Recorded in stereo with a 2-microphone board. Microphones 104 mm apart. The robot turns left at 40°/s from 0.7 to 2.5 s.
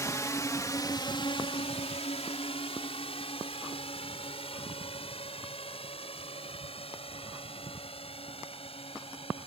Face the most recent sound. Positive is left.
turn(degrees=70)  # may be behind; listen again after turning